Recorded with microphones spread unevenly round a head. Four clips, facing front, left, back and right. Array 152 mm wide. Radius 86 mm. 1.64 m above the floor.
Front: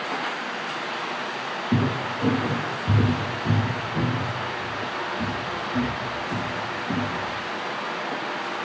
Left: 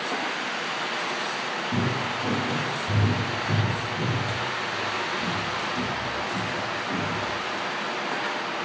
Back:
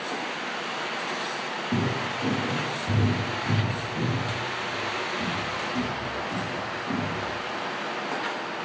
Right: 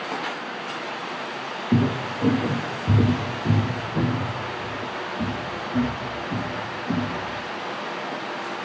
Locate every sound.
1.7 s footsteps: 40° right, 3 m; by 7.2 s 85° right, 6 m